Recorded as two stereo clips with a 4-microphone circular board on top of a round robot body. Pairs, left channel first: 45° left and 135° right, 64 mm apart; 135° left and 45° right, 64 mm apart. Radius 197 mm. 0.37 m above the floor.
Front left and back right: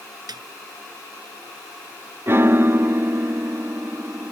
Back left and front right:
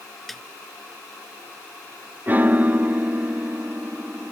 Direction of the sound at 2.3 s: 100° right.